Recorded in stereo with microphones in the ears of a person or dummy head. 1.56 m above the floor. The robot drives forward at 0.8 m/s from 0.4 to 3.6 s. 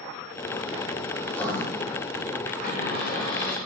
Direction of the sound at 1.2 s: 15° left (ahead or behind).